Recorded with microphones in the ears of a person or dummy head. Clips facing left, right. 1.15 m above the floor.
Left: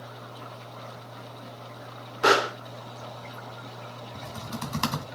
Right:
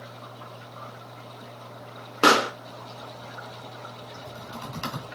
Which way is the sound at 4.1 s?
65° left (ahead or behind).